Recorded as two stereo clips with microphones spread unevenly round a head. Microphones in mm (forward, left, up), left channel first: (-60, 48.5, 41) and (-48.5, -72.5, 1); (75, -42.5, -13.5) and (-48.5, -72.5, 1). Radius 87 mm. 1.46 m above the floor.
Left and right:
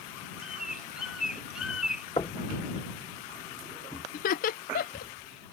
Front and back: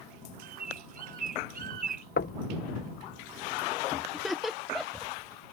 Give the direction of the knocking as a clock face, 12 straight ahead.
11 o'clock.